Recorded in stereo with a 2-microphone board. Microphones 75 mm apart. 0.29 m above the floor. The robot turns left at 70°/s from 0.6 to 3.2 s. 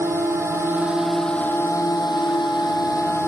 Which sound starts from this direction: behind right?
A drone, at 0.0 s.